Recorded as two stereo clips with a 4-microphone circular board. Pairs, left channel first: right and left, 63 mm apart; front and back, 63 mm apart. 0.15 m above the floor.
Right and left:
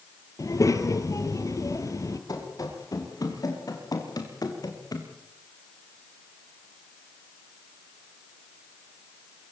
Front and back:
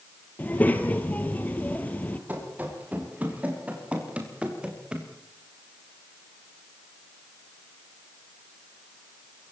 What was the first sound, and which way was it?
A child speaking, 60° right.